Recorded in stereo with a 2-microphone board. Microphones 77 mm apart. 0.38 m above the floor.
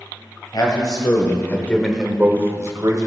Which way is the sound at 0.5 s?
60° left (ahead or behind).